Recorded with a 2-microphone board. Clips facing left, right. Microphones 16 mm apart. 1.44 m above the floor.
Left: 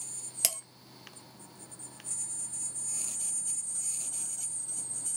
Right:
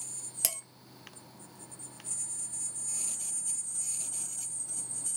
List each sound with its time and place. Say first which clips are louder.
0.4 s dishes clattering: left 3 dB; 20° left (ahead or behind), 0.7 m